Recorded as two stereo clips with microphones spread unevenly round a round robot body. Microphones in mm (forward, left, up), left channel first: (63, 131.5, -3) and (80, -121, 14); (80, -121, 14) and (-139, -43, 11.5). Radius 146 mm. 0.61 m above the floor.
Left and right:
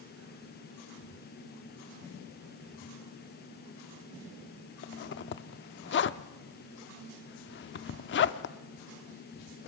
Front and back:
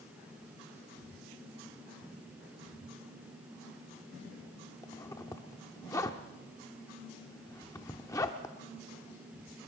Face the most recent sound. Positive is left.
turn(degrees=60)